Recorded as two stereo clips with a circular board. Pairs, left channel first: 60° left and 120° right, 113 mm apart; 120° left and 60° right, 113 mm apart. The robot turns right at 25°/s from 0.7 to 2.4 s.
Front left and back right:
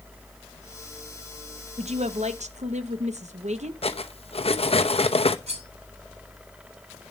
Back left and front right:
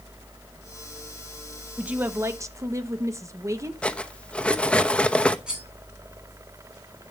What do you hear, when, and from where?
1.8 s a woman speaking: 140° right, 1.2 m; by 3.7 s 125° right, 1.2 m
3.8 s cutlery clinking: 40° left, 0.9 m
5.5 s cutlery clinking: 145° right, 4 m